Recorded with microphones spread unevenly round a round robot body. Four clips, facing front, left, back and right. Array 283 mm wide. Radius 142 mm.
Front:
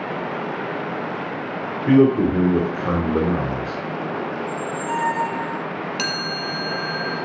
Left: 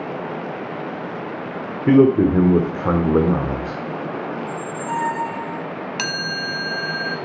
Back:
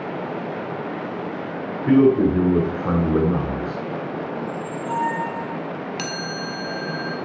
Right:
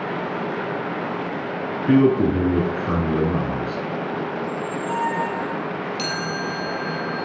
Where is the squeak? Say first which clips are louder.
Right 1 dB, front 2 dB; 45° left, 4 m.